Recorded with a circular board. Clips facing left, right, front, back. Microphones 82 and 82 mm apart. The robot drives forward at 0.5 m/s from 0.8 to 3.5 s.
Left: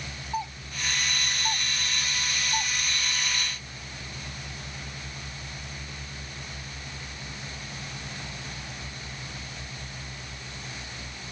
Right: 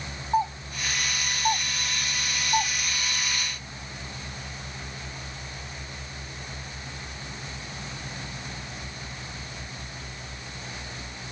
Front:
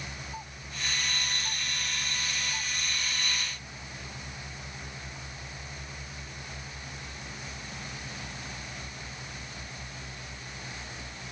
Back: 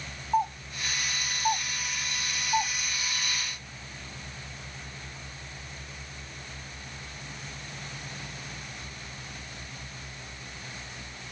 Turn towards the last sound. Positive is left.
turn(degrees=-155)